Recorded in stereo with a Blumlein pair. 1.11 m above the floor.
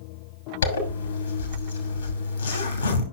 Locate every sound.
0.6 s a zipper: 70° left, 2 m